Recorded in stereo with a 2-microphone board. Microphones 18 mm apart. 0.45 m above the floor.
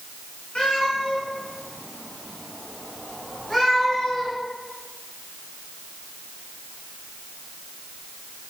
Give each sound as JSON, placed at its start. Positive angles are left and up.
{"t": 0.6, "sound": "a cat meowing", "side_deg": 80, "distance_m": 3.0}